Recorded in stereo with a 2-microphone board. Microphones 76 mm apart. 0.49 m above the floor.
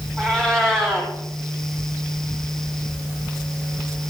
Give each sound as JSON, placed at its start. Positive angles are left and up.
{"t": 0.2, "sound": "a cat meowing", "side_deg": 10, "distance_m": 5.0}